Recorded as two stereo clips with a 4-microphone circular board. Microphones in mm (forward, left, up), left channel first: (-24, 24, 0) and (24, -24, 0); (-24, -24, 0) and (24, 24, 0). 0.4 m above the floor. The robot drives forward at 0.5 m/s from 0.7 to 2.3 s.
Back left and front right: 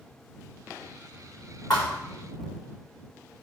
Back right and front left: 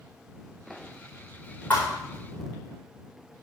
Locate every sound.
1.7 s a thud: 165° left, 4 m